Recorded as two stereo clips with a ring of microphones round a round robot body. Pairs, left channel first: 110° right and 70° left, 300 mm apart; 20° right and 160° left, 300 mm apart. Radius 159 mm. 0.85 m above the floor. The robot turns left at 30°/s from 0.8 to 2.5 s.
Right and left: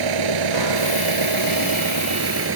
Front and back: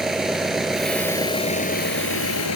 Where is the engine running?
70° left; by 2.6 s 20° left.